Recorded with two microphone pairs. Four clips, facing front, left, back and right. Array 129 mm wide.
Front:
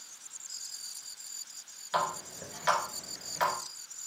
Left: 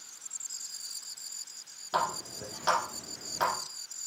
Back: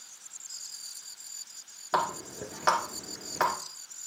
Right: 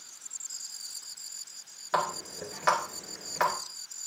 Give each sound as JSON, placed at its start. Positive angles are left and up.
{"t": 1.9, "sound": "a running tap", "azimuth_deg": -175, "distance_m": 2.0}